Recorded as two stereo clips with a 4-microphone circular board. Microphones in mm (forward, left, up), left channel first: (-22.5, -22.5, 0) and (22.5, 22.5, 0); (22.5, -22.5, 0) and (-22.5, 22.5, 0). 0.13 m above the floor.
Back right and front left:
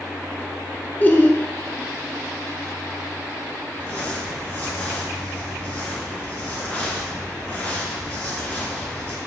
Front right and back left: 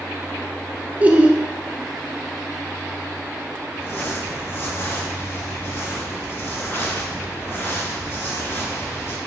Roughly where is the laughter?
Behind.